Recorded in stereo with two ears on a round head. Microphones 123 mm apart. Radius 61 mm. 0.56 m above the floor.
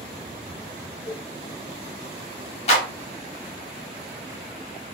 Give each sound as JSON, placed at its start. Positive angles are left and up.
{"t": 1.1, "sound": "a cowbell", "side_deg": 75, "distance_m": 1.5}
{"t": 2.7, "sound": "a clap", "side_deg": 50, "distance_m": 1.2}